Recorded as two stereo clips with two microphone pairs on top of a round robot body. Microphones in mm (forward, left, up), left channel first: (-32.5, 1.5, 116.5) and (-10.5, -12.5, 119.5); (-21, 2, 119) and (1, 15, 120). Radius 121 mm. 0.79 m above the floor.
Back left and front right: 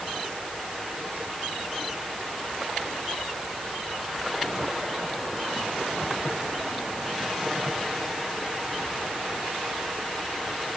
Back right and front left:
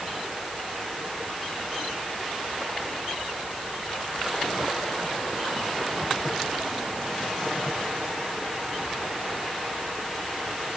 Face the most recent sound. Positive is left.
No sound to turn to.